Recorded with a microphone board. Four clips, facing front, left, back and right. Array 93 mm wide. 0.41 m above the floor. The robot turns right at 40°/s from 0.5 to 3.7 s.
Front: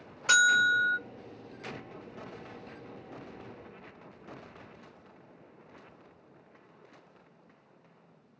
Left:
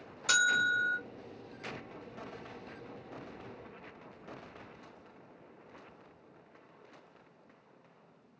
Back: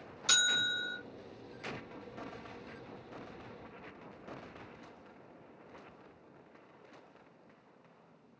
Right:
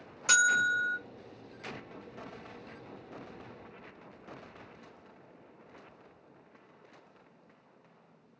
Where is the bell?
30° right, 0.9 m; by 1.0 s 10° right, 0.9 m.